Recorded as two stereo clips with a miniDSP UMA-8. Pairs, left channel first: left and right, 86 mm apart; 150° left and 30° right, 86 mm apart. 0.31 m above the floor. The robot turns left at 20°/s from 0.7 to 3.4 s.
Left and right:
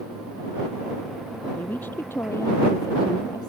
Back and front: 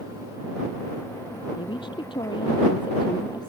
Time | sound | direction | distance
1.6 | a woman speaking | 160° left | ?